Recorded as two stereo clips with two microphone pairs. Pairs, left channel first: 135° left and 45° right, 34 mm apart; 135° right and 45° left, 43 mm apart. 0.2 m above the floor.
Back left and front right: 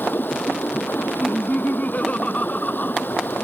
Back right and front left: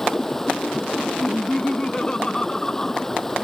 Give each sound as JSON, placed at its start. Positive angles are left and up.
{"t": 0.0, "sound": "running water", "azimuth_deg": 145}
{"t": 1.2, "sound": "laughter", "azimuth_deg": 160}